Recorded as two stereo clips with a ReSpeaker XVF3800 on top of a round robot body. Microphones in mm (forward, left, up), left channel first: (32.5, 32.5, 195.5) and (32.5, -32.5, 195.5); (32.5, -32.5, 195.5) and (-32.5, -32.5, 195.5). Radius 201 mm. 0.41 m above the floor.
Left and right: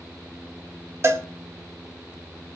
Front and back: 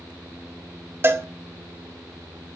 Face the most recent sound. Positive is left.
turn(degrees=-130)